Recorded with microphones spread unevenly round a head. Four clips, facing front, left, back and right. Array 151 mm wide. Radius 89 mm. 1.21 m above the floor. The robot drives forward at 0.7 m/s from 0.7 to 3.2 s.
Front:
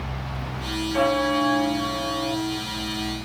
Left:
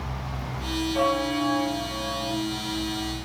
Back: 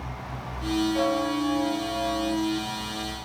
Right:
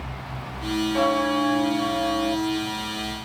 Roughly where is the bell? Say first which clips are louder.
Right 2 dB, front 4 dB; ahead right.